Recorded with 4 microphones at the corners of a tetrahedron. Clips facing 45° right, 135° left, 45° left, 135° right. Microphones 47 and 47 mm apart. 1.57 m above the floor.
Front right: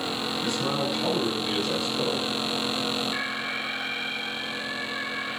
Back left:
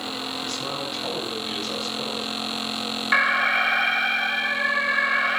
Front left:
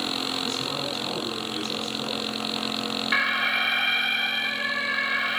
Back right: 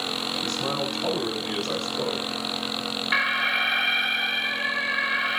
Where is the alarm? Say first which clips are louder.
Back left 10 dB, back right 1 dB; 135° left, 1.2 m.